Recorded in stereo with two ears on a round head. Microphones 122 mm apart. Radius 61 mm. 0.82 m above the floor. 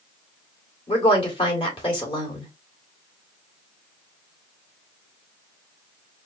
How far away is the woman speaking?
About 2.5 m.